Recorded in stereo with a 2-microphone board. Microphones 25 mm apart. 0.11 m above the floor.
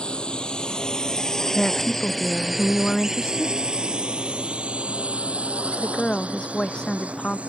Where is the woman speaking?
40° left (ahead or behind).